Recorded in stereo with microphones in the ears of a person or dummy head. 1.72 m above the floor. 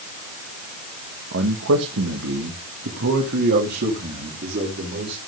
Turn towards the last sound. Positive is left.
turn(degrees=-40)  # may be behind; listen again after turning